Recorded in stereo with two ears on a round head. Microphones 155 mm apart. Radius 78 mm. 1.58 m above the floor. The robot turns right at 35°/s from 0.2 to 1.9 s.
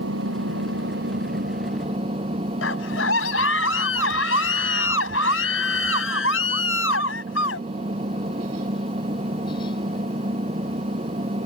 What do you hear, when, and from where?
0.0 s an engine running: 95° right; by 11.5 s 35° right
2.6 s a scream: 90° left